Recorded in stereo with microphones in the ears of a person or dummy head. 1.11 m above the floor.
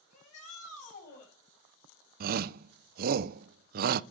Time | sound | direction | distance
0.1 | a shout | 45° left (ahead or behind) | 8 m
2.2 | a shout | 40° right (ahead or behind) | 0.6 m